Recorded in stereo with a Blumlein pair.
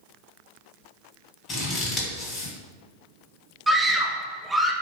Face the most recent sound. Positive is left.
turn(degrees=-5)